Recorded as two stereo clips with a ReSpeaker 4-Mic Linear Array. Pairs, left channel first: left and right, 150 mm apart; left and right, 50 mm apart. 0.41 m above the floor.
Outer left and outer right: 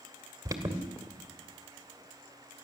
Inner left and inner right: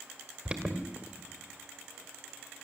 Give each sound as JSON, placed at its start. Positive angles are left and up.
{"t": 0.5, "sound": "an alarm", "side_deg": -25, "distance_m": 2.0}